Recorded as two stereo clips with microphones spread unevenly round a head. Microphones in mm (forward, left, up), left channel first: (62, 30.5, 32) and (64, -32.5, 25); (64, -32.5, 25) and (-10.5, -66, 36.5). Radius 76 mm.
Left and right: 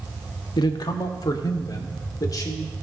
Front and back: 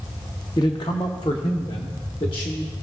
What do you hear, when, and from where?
0.6 s a man speaking: 85° left, 0.7 m; by 2.7 s 70° left, 2.0 m